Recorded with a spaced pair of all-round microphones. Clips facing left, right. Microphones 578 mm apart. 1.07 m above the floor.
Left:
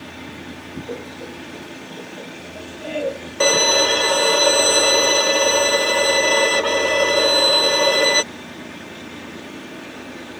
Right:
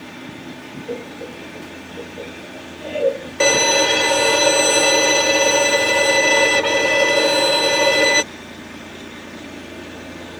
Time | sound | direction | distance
0.9 | laughter | 55° right (ahead or behind) | ?
3.4 | a violin | 50° right (ahead or behind) | ?